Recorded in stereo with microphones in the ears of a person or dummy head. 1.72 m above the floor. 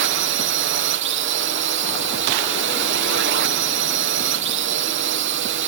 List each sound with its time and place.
0.0 s a drone: 55° right (ahead or behind)